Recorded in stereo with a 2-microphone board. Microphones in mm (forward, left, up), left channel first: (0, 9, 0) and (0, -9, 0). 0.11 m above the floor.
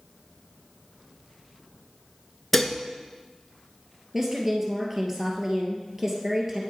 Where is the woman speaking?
20° right (ahead or behind), 2.0 m.